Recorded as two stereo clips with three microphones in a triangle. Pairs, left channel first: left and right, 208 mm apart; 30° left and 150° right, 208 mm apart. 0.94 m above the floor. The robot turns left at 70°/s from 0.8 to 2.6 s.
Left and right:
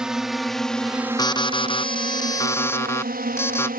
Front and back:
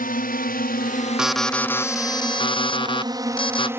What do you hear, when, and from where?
0.0 s a drone: 5° right; by 3.8 s 75° right
1.2 s an alarm: 130° left; by 3.7 s 30° left